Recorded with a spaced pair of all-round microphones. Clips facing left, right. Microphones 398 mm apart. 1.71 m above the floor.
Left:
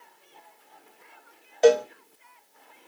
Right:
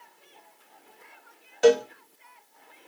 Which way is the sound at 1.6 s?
20° right (ahead or behind).